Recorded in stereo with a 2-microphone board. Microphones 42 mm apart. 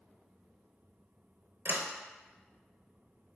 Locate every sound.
1.6 s a sliding door: 65° right (ahead or behind), 0.7 m